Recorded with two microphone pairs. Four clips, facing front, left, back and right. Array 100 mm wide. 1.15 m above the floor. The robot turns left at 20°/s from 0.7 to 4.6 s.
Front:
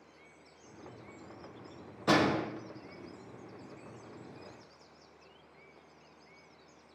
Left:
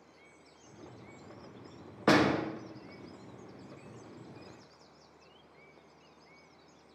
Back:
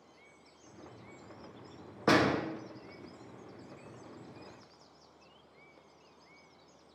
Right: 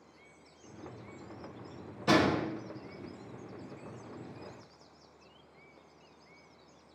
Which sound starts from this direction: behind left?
A door slam, at 2.1 s.